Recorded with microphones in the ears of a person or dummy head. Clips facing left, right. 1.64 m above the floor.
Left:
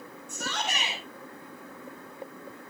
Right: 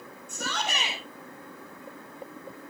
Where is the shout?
75° right (ahead or behind), 6 m.